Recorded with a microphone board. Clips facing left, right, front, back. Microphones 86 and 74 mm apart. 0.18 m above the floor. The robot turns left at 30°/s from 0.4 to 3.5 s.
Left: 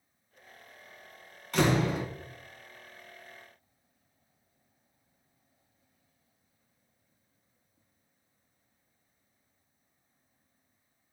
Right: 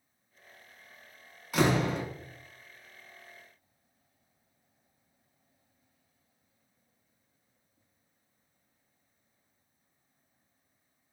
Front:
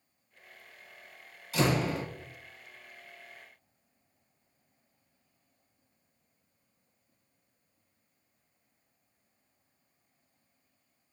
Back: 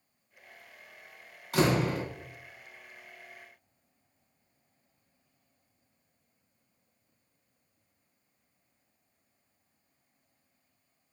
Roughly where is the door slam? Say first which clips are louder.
Even, back 2 dB; behind.